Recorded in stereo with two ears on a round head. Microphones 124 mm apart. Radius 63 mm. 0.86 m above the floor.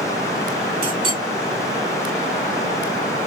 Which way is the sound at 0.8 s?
40° right (ahead or behind).